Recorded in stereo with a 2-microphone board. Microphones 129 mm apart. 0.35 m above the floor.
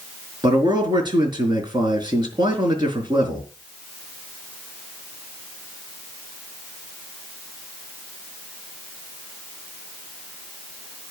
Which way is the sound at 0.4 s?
35° right (ahead or behind).